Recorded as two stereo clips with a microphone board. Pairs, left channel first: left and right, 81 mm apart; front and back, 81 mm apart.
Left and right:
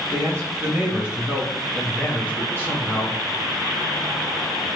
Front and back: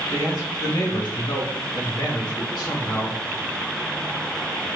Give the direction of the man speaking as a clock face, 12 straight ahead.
1 o'clock.